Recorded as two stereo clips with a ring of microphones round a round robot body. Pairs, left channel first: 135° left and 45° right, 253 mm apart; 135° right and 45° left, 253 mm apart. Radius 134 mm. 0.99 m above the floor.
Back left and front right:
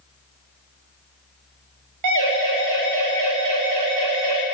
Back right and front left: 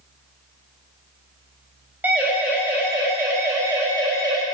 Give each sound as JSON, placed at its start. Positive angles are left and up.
{"t": 2.0, "sound": "a siren", "azimuth_deg": -40, "distance_m": 7.0}